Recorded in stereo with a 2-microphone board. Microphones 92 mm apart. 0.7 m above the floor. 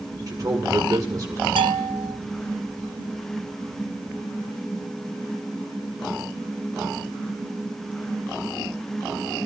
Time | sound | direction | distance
0.3 | a man speaking | 45° right (ahead or behind) | 2.0 m
1.6 | a bell | 65° right (ahead or behind) | 0.6 m